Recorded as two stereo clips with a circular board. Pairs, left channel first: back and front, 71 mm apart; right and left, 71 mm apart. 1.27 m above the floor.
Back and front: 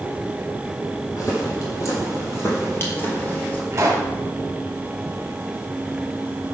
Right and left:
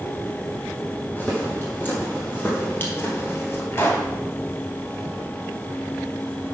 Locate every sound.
1.2 s footsteps: 150° right, 2.5 m; by 3.6 s 120° right, 1.5 m
3.7 s a pop: 45° right, 1.5 m